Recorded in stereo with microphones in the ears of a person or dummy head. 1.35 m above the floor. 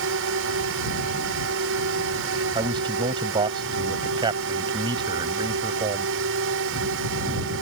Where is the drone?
70° right (ahead or behind).